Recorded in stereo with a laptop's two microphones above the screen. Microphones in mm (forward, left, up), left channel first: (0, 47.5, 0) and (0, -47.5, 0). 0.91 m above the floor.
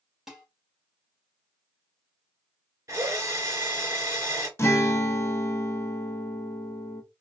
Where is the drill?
35° right (ahead or behind), 2.5 m.